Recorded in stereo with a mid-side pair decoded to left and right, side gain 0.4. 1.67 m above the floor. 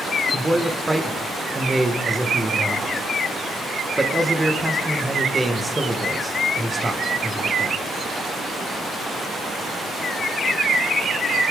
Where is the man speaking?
15° right, 2 m.